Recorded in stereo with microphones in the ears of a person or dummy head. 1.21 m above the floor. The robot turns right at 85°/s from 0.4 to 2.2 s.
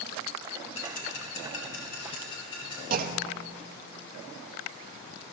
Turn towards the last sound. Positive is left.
turn(degrees=-45)  # may be behind; listen again after turning